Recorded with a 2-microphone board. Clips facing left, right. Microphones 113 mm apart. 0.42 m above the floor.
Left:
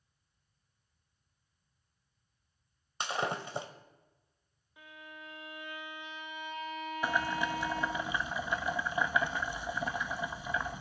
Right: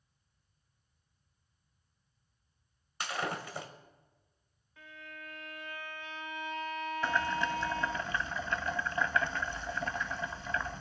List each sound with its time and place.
3.0 s breaking glass: 25° left (ahead or behind), 1.3 m
4.8 s a violin: 15° left (ahead or behind), 1.3 m
7.0 s boiling: 10° left (ahead or behind), 0.5 m